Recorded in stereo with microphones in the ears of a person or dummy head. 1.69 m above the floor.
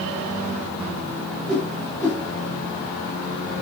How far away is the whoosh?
About 0.6 m.